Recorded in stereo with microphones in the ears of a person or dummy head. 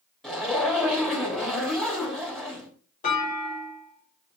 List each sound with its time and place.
0.2 s a zipper: 10° left (ahead or behind), 3 m
3.0 s a clunk: 40° left (ahead or behind), 4 m